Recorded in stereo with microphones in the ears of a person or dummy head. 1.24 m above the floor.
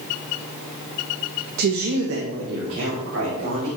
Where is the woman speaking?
45° right (ahead or behind), 0.7 m; by 3.7 s 70° right (ahead or behind), 3.5 m.